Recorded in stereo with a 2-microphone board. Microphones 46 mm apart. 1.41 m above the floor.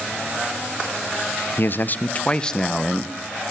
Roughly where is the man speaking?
Left.